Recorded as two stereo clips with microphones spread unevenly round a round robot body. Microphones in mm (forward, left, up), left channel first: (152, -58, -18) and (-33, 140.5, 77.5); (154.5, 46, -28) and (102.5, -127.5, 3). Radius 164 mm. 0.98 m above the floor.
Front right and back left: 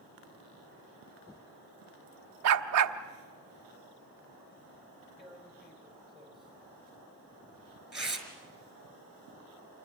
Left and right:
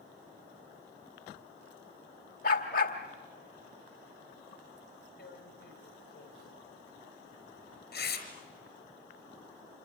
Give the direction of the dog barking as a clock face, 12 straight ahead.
7 o'clock.